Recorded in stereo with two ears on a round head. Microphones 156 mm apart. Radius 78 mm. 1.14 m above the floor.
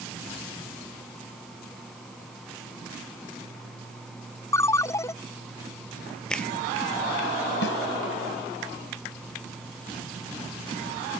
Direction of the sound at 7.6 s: 80° left.